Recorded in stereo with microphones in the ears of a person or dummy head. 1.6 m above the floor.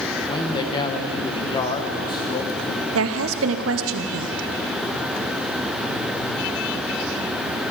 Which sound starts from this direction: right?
A woman speaking, at 3.0 s.